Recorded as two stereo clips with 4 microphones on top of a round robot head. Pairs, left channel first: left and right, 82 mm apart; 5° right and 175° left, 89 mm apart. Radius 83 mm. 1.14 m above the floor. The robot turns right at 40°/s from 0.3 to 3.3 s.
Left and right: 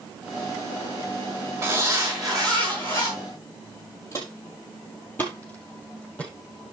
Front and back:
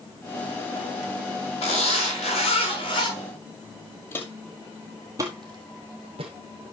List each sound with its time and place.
1.6 s a zipper: 30° right, 5.5 m; by 3.1 s 30° left, 5.5 m
4.1 s footsteps: 35° left, 1.2 m; by 6.3 s 165° left, 2 m